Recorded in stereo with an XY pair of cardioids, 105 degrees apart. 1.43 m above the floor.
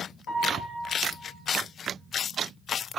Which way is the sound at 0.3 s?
70° left.